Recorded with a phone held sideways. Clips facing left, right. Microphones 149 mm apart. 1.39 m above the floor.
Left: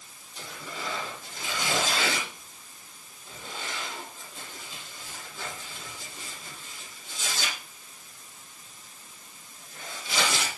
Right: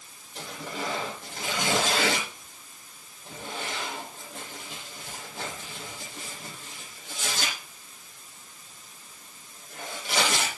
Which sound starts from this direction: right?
Tearing paper, at 0.3 s.